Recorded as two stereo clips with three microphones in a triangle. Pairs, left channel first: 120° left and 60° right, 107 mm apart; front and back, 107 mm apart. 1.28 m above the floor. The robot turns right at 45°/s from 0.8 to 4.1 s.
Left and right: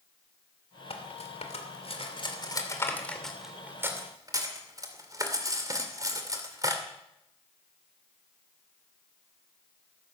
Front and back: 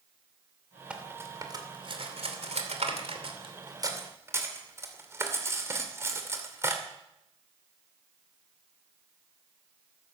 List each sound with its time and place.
0.9 s cutlery clinking: 100° left, 2.5 m; by 6.8 s 115° right, 2.5 m